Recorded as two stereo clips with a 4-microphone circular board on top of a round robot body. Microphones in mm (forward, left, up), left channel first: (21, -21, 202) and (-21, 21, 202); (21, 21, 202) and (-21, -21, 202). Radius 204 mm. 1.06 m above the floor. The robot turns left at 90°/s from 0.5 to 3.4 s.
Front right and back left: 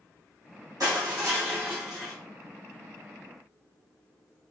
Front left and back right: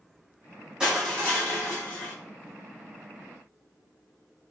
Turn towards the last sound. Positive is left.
turn(degrees=-85)